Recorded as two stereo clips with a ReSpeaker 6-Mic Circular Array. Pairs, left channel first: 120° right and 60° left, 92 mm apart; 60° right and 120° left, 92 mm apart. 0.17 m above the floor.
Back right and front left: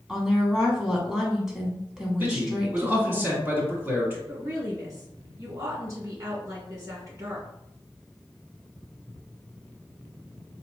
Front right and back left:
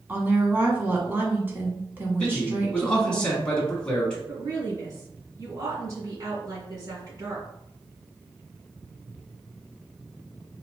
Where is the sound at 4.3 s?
90° left, 2 m.